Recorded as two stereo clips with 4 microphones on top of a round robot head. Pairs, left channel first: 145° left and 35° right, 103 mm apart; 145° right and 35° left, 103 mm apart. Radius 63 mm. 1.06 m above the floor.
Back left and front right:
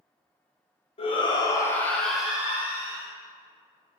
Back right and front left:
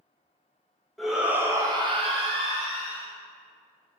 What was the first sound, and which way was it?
A shout, 125° left.